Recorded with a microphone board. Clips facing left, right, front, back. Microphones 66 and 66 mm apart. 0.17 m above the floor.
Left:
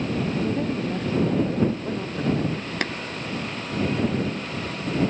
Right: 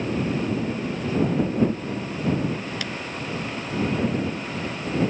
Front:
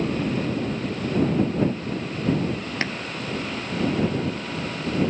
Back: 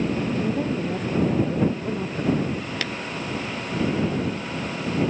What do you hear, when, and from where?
0.4 s a woman speaking: 140° left
2.8 s tapping: 55° left